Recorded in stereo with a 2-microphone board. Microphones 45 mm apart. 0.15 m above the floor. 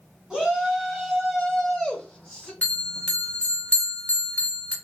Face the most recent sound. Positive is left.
turn(degrees=35)  # may be behind; listen again after turning